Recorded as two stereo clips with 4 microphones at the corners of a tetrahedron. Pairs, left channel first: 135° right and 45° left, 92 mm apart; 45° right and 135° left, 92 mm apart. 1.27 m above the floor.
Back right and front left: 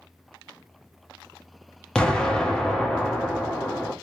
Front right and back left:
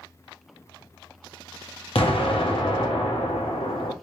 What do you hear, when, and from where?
1.9 s an explosion: 55° right, 0.8 m